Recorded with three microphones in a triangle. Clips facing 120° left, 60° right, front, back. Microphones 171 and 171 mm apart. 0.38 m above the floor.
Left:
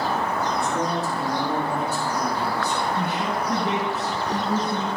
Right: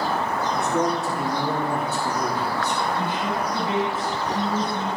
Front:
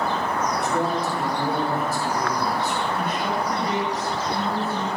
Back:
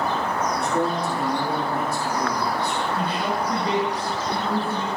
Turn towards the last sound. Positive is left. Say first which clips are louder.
# even, even
turn(degrees=120)